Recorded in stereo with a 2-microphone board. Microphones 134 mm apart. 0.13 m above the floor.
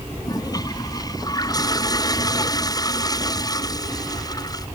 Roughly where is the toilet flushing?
Left.